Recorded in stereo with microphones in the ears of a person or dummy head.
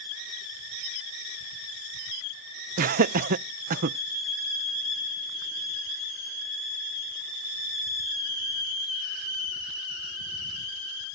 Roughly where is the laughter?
Right.